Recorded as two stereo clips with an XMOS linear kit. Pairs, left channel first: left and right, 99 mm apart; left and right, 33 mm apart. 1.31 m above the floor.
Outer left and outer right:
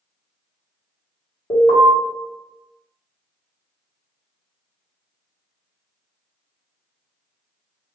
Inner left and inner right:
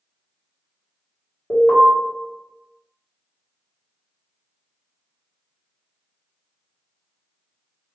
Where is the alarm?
55° left (ahead or behind), 1.2 m.